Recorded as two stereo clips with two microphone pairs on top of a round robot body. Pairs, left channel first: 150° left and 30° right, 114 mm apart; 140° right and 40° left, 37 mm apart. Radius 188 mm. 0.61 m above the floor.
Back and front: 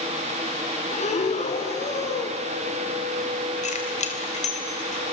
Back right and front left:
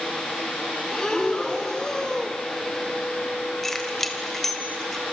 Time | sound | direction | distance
0.9 | breathing | 150° left | 2 m
3.6 | keys jangling | 140° left | 3 m